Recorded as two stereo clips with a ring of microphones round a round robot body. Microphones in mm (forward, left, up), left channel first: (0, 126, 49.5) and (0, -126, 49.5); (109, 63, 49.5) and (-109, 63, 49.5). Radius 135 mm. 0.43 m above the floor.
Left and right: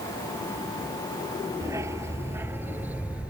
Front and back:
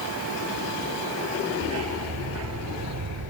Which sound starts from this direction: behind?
A dog barking, at 1.6 s.